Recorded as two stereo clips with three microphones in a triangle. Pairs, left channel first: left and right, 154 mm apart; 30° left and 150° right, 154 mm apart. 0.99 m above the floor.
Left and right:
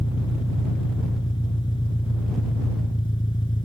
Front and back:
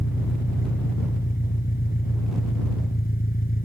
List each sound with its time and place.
0.0 s an engine running: 30° left